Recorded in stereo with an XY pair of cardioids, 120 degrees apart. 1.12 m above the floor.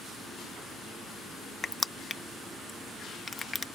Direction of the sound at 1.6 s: 25° left.